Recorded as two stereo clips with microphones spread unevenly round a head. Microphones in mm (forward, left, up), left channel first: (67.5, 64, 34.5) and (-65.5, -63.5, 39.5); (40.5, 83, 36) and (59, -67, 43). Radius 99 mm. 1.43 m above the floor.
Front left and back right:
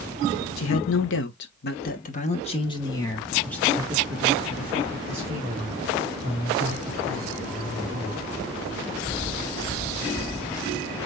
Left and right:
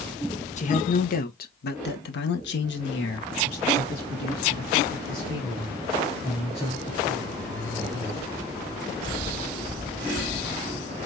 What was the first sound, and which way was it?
A man speaking, 55° left.